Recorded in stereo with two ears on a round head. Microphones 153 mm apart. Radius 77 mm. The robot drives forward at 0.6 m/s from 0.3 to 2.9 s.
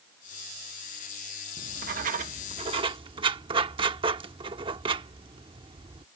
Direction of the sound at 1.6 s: 55° right (ahead or behind).